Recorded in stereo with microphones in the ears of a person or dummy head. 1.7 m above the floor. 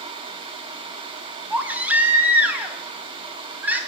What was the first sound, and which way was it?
A baby crying, 10° right (ahead or behind).